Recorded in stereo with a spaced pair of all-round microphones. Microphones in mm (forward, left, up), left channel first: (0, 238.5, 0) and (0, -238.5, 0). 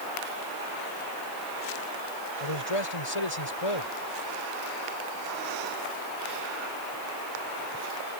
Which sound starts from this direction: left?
A man speaking, at 2.4 s.